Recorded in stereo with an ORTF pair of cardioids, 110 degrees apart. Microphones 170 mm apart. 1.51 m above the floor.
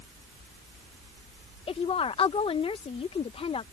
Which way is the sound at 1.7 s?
35° left.